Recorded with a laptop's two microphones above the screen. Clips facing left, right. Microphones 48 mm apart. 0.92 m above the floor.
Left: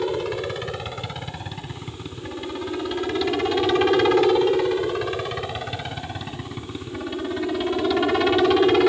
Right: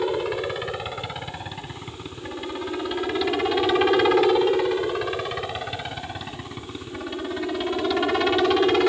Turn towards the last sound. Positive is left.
turn(degrees=5)  # may be behind; listen again after turning